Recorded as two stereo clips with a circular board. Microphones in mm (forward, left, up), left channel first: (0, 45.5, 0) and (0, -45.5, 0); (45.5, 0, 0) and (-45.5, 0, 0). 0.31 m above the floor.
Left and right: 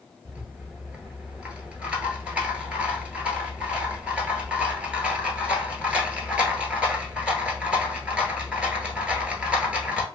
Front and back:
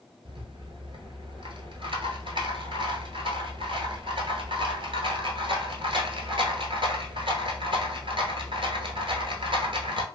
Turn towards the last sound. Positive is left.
turn(degrees=-170)